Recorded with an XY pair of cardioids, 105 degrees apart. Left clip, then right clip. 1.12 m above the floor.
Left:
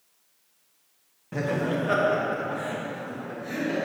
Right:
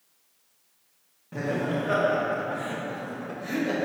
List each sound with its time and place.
1.3 s laughter: 35° left, 2 m; by 3.9 s 50° right, 1.9 m